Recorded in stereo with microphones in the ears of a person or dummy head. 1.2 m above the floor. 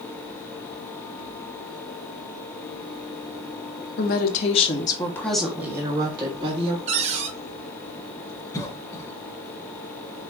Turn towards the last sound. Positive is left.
turn(degrees=15)  # may be behind; listen again after turning